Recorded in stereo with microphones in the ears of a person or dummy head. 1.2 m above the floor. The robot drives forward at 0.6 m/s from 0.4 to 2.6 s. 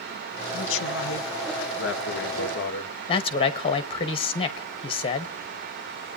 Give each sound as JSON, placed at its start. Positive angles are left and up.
{"t": 0.5, "sound": "a man speaking", "side_deg": 70, "distance_m": 1.7}
{"t": 3.1, "sound": "a man speaking", "side_deg": 30, "distance_m": 1.0}